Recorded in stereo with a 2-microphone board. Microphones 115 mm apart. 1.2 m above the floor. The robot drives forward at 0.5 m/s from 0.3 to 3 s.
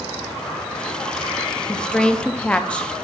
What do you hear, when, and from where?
1.7 s a woman speaking: 5° left (ahead or behind), 0.7 m; by 2.9 s 10° left (ahead or behind), 0.5 m